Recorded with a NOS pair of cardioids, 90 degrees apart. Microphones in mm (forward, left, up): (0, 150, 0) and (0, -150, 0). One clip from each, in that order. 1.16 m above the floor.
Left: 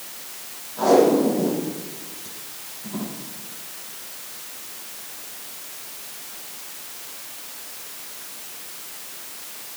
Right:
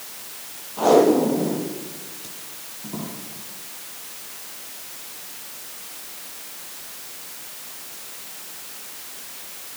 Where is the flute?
No flute in this recording.